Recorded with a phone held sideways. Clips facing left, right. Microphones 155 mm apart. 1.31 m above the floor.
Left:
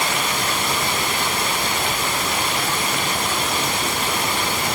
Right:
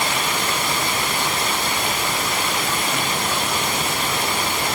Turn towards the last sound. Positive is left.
No sound to turn to.